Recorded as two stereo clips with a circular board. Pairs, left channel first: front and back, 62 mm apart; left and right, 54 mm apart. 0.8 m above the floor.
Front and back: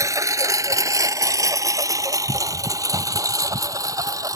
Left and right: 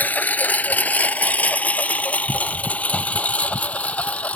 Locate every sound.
0.0 s a lawn mower: 150° left; by 4.3 s 155° left